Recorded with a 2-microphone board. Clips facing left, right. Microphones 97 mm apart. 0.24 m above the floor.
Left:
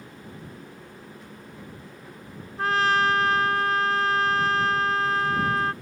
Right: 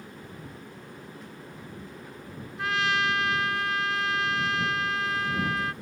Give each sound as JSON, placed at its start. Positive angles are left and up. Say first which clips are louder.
{"t": 2.6, "sound": "a trumpet", "louder": "left 5 dB", "side_deg": 40}